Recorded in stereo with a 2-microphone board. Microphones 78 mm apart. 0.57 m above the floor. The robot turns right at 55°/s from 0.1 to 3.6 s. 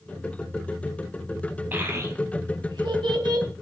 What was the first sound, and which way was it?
A child speaking, 25° right (ahead or behind).